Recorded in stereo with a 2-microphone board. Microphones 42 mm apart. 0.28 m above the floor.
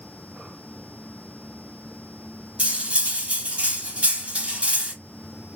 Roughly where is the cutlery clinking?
Right.